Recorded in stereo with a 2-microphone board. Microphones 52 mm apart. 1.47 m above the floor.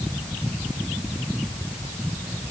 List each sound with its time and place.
Only background noise.